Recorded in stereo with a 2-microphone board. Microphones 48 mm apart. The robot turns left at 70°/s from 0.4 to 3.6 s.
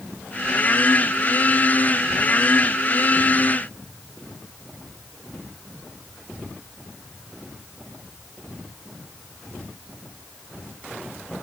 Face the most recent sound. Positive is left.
No sound to turn to.